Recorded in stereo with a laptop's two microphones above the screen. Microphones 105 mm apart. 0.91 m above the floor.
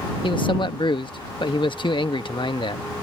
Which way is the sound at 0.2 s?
55° left (ahead or behind).